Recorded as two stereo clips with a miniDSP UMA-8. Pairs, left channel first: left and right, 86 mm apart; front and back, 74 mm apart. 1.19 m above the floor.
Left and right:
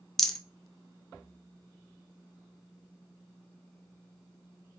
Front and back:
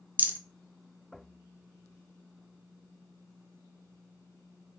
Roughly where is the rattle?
Behind.